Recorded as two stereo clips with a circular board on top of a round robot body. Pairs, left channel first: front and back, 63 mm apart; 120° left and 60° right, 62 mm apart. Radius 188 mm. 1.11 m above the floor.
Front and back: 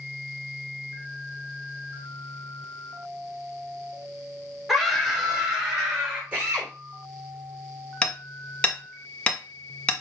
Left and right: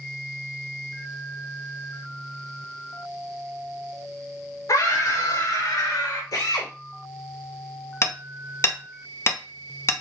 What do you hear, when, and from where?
4.7 s a scream: 95° left, 2.5 m; by 6.2 s 105° left, 3.5 m
6.3 s a drill: 110° left, 3.5 m
8.0 s hammering: 75° left, 1.1 m